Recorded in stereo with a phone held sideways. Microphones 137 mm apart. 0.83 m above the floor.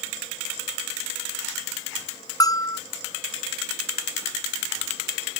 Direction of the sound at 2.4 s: 30° left (ahead or behind).